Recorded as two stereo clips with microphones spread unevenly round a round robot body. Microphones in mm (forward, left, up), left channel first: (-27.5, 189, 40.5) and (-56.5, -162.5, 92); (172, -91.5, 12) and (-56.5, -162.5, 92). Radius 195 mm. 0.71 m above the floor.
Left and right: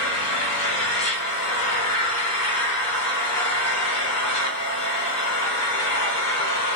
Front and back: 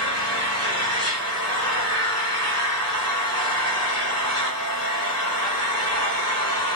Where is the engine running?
130° left, 2 m.